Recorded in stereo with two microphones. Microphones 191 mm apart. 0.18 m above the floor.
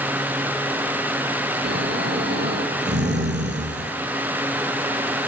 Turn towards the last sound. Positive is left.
turn(degrees=-65)  # may be behind; listen again after turning